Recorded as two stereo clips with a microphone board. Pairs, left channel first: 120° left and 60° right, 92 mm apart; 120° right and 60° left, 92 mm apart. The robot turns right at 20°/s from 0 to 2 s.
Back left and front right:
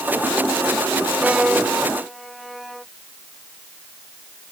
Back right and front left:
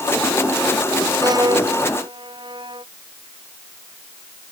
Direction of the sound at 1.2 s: 15° left.